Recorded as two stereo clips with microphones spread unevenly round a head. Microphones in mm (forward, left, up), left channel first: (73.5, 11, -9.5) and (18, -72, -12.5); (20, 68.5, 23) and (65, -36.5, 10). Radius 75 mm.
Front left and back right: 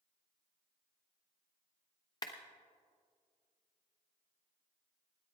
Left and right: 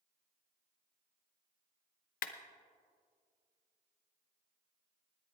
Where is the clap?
120° left, 0.7 m.